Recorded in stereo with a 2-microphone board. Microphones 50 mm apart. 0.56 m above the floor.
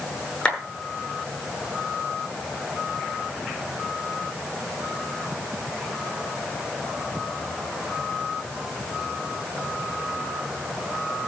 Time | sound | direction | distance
0.5 | a clap | 20° left (ahead or behind) | 9.5 m